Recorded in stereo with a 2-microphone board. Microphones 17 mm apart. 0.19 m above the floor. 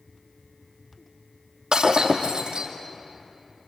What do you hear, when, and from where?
1.7 s breaking glass: 75° right (ahead or behind), 3 m